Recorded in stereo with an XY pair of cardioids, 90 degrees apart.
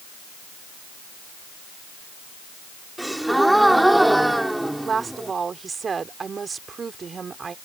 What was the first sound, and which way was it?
A gasp, 10° right.